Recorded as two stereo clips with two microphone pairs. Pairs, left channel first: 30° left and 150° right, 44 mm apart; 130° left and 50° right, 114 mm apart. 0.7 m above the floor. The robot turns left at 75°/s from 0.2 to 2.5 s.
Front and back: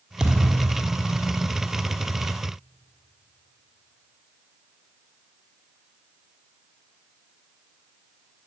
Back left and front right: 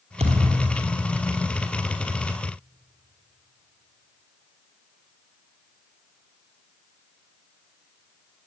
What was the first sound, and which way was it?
A thud, 75° right.